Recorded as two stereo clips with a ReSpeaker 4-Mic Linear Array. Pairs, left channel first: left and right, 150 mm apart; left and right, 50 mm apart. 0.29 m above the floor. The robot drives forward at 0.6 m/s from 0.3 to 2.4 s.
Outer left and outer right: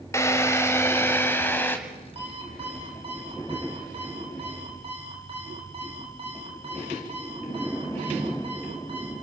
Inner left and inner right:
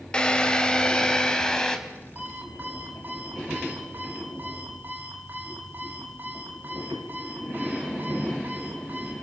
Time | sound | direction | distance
0.1 | a drill | 20° left (ahead or behind) | 1.4 m
2.1 | an alarm clock | 40° right (ahead or behind) | 4.5 m